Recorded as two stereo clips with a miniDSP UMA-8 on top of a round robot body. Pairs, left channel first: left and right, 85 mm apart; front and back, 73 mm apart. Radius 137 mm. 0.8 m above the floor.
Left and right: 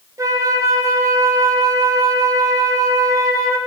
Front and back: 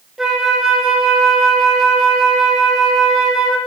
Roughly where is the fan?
No fan in this recording.